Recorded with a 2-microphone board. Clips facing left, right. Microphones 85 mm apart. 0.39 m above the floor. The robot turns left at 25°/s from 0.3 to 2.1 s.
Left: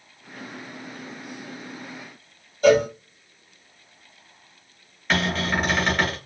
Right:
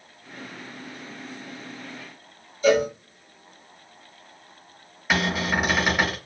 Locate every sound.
2.6 s a cowbell: 60° left (ahead or behind), 1.4 m
5.1 s a cupboard door: 10° right (ahead or behind), 1.0 m